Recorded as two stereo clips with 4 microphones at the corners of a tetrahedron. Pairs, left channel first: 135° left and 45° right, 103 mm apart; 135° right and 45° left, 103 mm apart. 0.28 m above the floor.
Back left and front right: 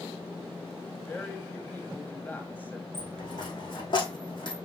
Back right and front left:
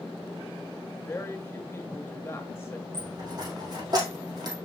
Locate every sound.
1.1 s a woman speaking: 170° right, 1.5 m
2.9 s a dropped coin: 95° left, 3.5 m